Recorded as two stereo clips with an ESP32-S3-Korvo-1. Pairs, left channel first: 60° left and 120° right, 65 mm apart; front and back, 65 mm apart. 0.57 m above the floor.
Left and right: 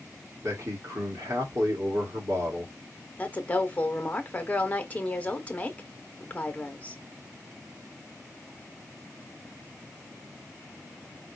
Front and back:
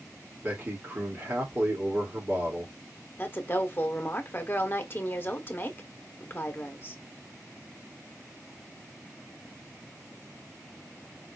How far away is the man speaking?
About 1.7 m.